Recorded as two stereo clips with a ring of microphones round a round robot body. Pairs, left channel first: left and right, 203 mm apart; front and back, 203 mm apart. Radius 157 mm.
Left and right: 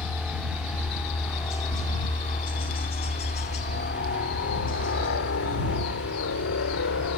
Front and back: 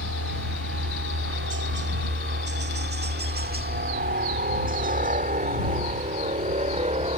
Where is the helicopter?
Straight behind; by 7.2 s 120° left.